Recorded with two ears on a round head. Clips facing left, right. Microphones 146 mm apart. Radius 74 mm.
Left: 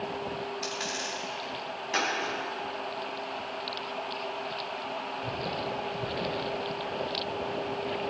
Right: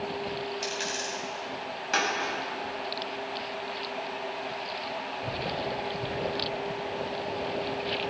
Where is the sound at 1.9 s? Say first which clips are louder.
Right 2 dB; 80° right, 5 m.